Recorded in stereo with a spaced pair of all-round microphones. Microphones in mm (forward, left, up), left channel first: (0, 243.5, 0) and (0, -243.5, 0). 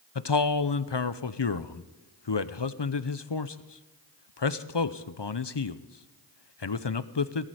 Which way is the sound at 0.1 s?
60° left (ahead or behind).